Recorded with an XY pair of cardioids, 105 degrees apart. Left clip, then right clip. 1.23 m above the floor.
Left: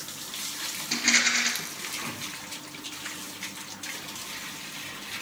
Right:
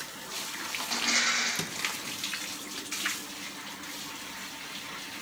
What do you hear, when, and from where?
0.9 s a rattle: 70° left, 2.5 m